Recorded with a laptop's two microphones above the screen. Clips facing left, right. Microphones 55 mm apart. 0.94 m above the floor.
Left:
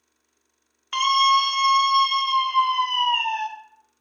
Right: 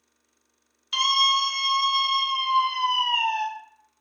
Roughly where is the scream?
Left.